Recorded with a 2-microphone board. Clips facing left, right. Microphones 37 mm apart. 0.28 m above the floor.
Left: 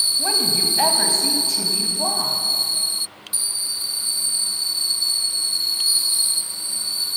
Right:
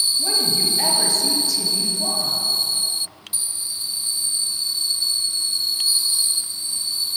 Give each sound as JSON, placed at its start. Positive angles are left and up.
{"t": 0.2, "sound": "a woman speaking", "side_deg": 40, "distance_m": 1.4}